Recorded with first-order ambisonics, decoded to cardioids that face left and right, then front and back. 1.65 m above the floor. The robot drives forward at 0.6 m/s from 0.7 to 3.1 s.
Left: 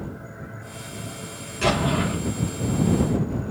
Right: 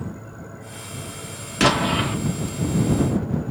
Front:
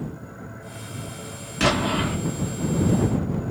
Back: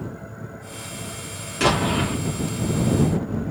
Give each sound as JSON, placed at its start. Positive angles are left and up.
{"t": 1.6, "sound": "an explosion", "azimuth_deg": -85, "distance_m": 2.5}